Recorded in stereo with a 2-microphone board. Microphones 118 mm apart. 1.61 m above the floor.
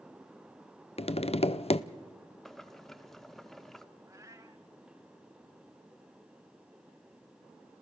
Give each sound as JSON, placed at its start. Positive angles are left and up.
{"t": 1.0, "sound": "tapping", "side_deg": 55, "distance_m": 0.5}
{"t": 2.5, "sound": "boiling", "side_deg": 5, "distance_m": 0.7}
{"t": 4.1, "sound": "a cat meowing", "side_deg": -25, "distance_m": 1.1}